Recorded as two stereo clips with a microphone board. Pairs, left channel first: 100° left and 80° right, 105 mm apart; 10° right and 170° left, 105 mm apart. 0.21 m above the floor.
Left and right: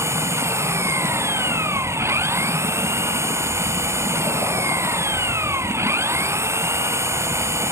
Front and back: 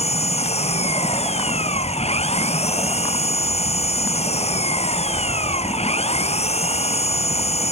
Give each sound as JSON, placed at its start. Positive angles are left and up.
{"t": 0.0, "sound": "an engine running", "azimuth_deg": -15}